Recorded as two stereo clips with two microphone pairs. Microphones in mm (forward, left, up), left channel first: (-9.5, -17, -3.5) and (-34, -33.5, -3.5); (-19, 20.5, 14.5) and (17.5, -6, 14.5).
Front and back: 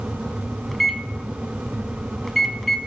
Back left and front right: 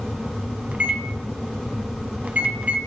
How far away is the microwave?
About 0.9 m.